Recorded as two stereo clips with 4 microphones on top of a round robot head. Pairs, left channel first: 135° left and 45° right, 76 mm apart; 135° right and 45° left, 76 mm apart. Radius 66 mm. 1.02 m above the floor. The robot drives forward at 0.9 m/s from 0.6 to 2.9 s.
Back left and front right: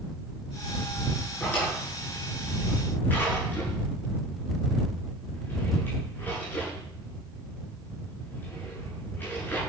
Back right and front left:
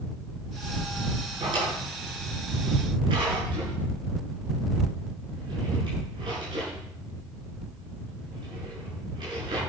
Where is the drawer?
60° left, 8 m; by 9.6 s 70° left, 7.5 m.